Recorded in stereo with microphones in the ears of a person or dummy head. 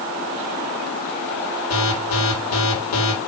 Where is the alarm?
80° left, 5 m.